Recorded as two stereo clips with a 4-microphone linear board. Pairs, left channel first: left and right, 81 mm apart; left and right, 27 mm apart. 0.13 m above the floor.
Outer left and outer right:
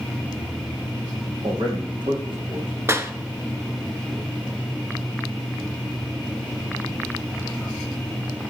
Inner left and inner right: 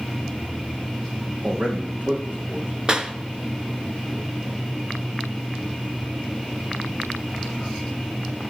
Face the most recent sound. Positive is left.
turn(degrees=-35)  # may be behind; listen again after turning